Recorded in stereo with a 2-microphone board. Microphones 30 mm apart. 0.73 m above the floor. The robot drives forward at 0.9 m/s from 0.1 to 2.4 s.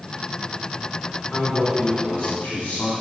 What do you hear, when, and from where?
1.3 s a man speaking: 50° left (ahead or behind), 1.3 m; by 2.9 s 55° left (ahead or behind), 1.2 m